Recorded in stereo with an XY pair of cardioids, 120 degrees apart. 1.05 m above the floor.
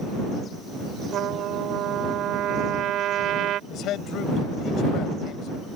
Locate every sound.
1.1 s a trumpet: 65° right
3.7 s a man speaking: 70° left